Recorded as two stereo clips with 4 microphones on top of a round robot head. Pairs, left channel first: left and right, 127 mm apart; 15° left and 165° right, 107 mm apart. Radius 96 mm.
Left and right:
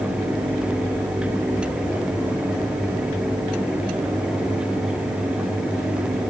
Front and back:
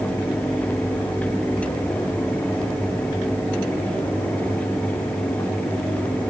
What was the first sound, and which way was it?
Only background noise.